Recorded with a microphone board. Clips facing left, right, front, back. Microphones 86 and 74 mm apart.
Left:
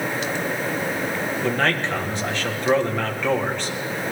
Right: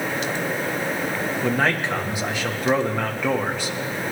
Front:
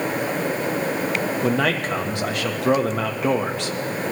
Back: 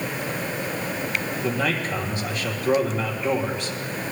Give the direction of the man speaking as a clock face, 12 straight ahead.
12 o'clock.